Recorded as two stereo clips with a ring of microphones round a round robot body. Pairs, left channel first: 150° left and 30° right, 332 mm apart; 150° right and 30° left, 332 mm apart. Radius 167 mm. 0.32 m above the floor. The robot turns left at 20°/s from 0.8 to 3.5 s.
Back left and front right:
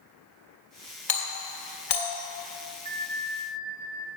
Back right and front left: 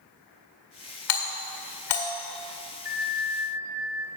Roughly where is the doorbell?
Behind right.